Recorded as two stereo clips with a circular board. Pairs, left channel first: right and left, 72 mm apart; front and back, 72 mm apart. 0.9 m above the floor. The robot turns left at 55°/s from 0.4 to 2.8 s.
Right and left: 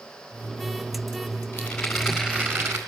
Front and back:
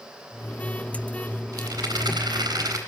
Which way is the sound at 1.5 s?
155° right.